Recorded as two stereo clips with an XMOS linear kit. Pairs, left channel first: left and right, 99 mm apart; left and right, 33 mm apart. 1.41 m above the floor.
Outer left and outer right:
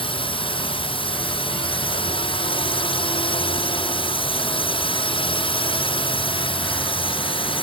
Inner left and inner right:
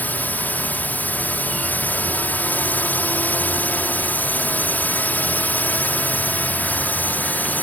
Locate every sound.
0.0 s a drone: 70° left (ahead or behind)